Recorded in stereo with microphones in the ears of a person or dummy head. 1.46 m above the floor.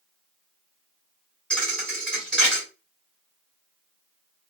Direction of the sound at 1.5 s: 5° left (ahead or behind).